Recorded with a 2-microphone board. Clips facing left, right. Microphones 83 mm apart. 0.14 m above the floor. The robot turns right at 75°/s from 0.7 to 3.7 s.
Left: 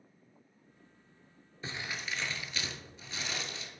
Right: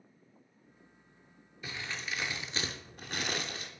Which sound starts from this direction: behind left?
Crumpling, at 1.6 s.